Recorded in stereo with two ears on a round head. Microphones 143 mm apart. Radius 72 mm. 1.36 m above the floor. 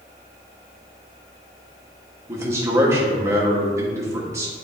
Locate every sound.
2.3 s a man speaking: 20° right (ahead or behind), 1.5 m